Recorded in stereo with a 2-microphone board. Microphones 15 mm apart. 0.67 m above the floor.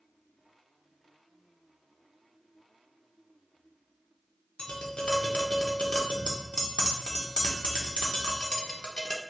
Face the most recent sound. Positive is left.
turn(degrees=75)  # may be behind; listen again after turning